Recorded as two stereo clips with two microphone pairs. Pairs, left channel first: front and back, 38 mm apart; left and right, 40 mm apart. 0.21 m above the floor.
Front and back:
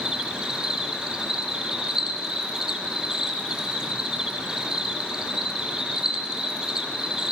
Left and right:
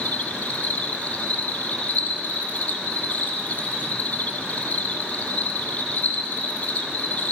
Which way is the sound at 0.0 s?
120° left.